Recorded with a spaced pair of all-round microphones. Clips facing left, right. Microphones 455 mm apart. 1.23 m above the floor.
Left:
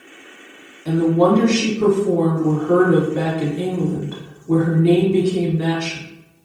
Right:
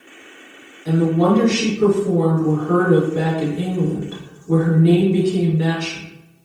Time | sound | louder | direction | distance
0.8 | a woman speaking | left 1 dB | 5° left (ahead or behind) | 1.1 m